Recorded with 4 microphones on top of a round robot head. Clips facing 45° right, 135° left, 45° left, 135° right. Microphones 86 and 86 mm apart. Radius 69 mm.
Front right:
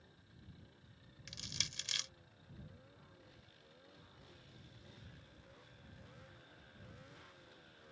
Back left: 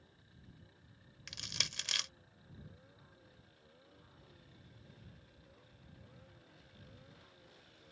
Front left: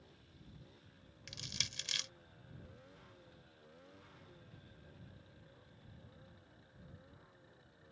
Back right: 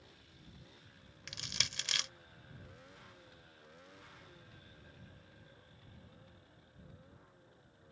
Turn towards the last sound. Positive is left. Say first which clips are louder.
# back left 4 dB, back right 4 dB
turn(degrees=180)